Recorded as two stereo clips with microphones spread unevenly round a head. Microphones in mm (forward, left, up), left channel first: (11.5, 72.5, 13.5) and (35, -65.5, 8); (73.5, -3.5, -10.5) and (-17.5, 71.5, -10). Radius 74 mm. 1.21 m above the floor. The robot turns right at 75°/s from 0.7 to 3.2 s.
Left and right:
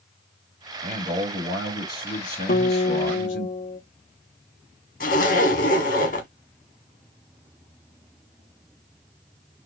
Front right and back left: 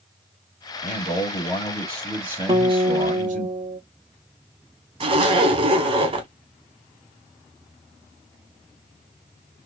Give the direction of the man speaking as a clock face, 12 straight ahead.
1 o'clock.